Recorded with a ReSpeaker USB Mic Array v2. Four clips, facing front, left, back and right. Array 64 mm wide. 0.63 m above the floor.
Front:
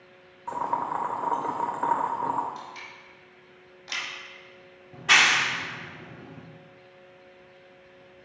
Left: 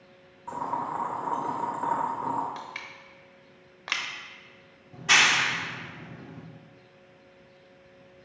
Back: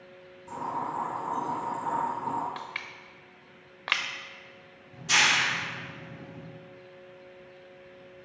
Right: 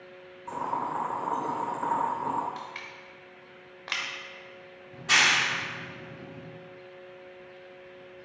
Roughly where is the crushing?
Behind.